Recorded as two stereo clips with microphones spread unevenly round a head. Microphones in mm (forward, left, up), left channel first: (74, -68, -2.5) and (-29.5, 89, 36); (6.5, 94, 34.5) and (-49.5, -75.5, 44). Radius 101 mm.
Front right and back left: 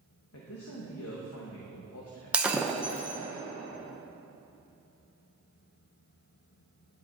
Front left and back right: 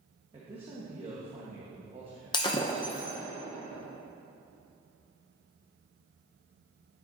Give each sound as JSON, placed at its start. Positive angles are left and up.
{"t": 0.3, "sound": "a man speaking", "azimuth_deg": -45, "distance_m": 0.9}
{"t": 2.3, "sound": "breaking glass", "azimuth_deg": 90, "distance_m": 0.5}